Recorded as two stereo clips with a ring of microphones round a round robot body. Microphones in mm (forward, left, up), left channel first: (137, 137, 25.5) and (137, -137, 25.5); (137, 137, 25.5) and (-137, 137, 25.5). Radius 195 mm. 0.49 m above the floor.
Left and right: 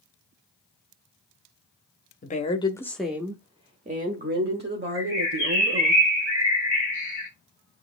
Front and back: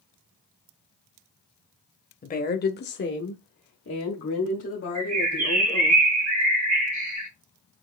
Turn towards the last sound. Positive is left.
turn(degrees=-170)